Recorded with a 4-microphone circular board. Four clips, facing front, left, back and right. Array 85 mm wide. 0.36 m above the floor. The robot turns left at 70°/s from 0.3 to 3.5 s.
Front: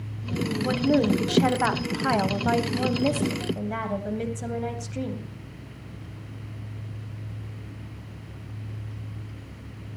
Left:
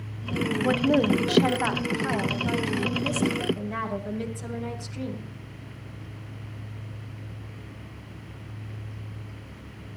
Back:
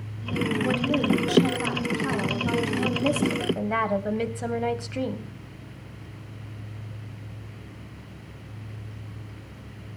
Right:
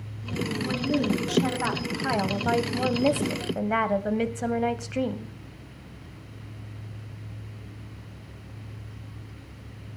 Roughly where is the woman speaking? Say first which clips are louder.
Left 5 dB, front 4 dB; left.